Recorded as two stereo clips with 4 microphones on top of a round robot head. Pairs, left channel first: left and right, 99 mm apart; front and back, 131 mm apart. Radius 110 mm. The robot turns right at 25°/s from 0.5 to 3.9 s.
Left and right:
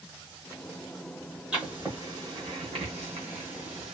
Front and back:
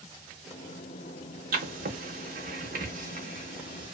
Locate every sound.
1.5 s writing: 175° right, 0.8 m; by 3.9 s 115° right, 0.8 m